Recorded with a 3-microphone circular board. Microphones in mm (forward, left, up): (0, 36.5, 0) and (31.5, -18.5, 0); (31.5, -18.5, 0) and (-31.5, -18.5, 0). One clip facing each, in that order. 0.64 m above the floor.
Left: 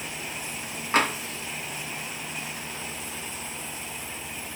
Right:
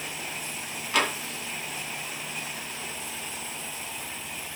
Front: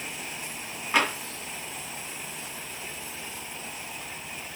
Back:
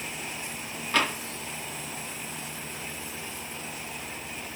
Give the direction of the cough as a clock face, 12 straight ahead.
No cough in this recording.